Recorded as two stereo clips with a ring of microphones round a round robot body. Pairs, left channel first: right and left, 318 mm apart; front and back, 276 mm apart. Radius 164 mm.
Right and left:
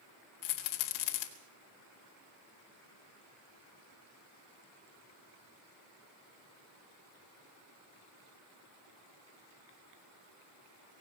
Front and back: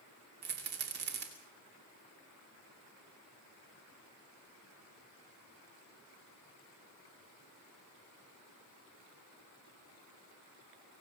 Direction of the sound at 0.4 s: 120° right.